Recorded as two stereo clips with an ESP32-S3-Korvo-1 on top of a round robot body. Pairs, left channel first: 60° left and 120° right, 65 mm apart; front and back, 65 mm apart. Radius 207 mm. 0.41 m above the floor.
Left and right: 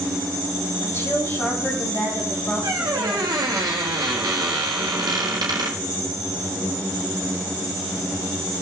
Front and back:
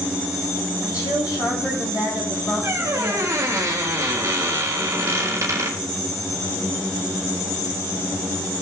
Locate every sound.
0.8 s a woman speaking: 10° left, 4.5 m
2.6 s a squeak: 140° right, 1.3 m